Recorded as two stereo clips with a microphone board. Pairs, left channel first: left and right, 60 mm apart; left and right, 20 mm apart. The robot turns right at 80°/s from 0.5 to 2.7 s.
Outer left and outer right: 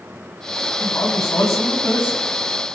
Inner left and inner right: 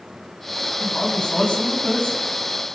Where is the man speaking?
40° left, 10 m; by 2.2 s 150° left, 10 m.